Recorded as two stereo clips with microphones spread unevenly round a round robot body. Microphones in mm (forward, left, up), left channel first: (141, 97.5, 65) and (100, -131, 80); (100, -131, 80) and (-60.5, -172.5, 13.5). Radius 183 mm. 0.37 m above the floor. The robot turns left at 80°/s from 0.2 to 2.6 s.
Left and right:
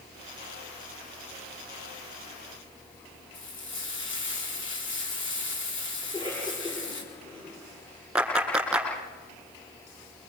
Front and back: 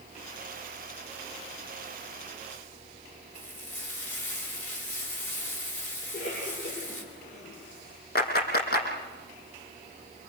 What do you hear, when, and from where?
3.3 s frying: 50° left, 5.5 m
6.0 s a cough: 10° left, 9 m
8.2 s a clap: 15° right, 6 m